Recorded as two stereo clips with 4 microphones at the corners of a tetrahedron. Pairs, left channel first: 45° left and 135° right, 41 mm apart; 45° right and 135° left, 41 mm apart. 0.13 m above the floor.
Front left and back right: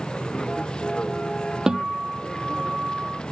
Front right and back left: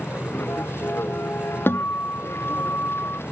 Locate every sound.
0.0 s a vehicle: 25° right
1.7 s a guitar: 60° right